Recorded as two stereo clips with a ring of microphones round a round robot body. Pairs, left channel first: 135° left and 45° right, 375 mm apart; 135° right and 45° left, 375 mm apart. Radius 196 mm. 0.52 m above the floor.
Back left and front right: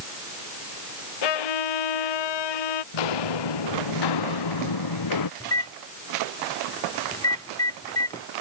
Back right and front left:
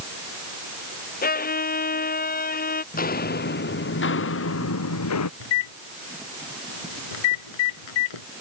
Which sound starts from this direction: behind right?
A microwave, at 5.4 s.